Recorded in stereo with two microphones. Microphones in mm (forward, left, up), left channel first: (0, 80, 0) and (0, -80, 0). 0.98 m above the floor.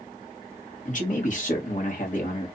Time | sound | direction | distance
0.8 | a man speaking | 50° left (ahead or behind) | 1.2 m